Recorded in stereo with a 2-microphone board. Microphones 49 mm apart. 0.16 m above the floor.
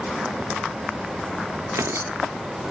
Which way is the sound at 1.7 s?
70° right (ahead or behind).